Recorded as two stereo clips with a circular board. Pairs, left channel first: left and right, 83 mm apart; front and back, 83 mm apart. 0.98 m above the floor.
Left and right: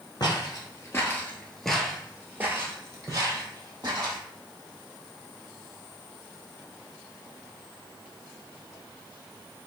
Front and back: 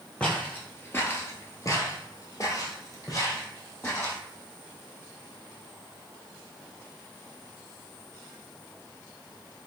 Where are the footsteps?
70° left, 1.5 m; by 4.2 s 55° right, 2.5 m.